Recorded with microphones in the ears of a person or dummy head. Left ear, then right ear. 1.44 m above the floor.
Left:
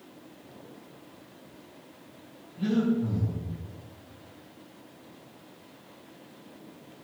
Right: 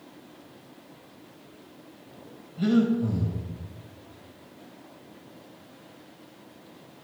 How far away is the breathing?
About 3.5 m.